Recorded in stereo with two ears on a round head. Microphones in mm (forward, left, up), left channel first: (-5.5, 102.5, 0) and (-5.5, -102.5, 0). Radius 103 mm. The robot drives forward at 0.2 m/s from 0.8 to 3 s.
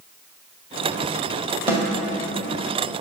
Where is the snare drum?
10° right (ahead or behind), 1.9 m.